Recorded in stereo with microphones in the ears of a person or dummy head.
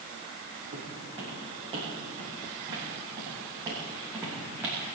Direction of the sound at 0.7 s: 30° right (ahead or behind).